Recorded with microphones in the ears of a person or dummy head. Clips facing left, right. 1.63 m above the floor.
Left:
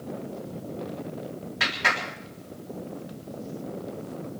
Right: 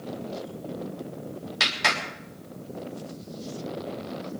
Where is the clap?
55° right (ahead or behind), 3.5 m.